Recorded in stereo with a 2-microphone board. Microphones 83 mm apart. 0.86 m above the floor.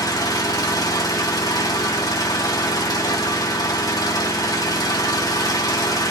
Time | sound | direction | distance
0.0 | an engine running | 45° left (ahead or behind) | 0.8 m